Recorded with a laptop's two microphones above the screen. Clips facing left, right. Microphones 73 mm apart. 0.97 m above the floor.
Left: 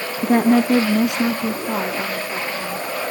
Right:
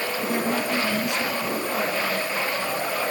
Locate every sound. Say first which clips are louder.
0.2 s a woman speaking: left 12 dB; 35° left (ahead or behind), 0.9 m; by 2.9 s 70° left (ahead or behind), 3.5 m